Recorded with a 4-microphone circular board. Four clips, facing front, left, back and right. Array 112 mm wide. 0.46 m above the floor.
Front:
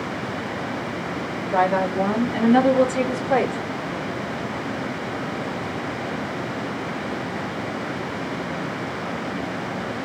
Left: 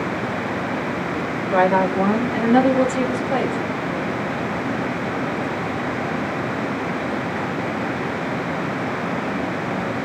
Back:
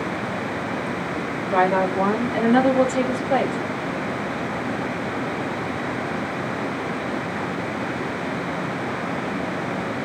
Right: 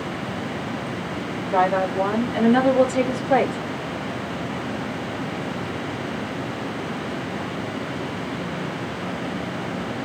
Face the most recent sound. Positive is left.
turn(degrees=-55)